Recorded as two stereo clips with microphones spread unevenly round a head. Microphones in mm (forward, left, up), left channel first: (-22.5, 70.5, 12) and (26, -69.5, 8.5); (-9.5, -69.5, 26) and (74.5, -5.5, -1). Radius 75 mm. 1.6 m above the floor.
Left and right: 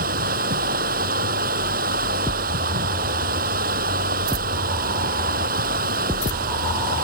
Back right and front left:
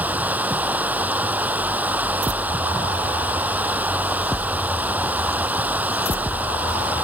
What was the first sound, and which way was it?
Running water, 40° right.